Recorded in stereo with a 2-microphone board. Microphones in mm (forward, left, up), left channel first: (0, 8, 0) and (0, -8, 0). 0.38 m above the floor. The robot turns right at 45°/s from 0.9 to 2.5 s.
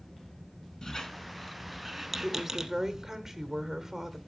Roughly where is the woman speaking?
Right.